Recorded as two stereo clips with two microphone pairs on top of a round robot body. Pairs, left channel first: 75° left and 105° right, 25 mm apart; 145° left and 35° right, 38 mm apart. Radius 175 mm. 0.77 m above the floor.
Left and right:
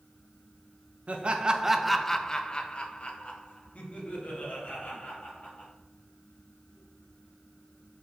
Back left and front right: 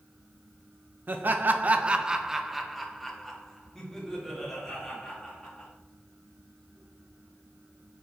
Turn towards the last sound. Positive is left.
turn(degrees=65)